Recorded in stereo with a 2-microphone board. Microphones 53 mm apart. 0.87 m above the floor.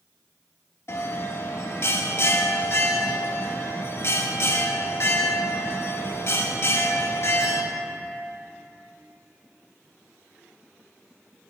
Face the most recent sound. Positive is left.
turn(degrees=50)  # may be behind; listen again after turning